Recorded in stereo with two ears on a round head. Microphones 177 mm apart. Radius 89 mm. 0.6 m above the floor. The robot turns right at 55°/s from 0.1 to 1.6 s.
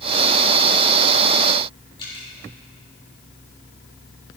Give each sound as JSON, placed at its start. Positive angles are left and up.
{"t": 2.0, "sound": "dripping", "side_deg": 25, "distance_m": 4.0}